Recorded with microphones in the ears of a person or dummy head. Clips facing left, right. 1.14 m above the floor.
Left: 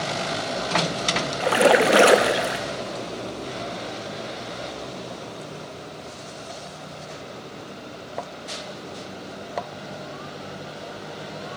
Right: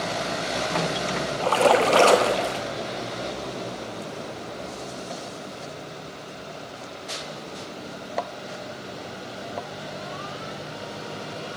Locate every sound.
1.4 s a splash: 25° left (ahead or behind), 0.7 m